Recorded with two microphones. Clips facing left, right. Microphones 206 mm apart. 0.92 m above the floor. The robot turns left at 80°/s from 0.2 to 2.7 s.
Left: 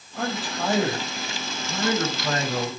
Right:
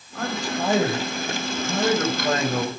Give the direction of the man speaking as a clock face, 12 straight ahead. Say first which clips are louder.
Right 2 dB; 11 o'clock.